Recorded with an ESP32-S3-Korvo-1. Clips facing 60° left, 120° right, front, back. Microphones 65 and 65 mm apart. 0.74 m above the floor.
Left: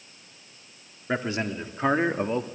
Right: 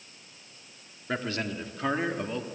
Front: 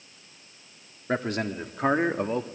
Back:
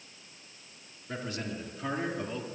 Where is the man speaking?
10° right, 2.0 m; by 2.5 s 20° left, 1.5 m.